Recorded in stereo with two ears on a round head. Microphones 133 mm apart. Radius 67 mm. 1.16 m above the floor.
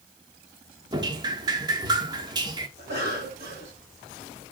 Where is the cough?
65° right (ahead or behind), 5.5 m.